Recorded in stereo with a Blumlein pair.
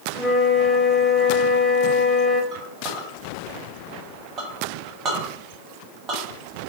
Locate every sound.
0.1 s a flute: 10° left, 0.8 m
2.5 s a clink: 30° right, 1.2 m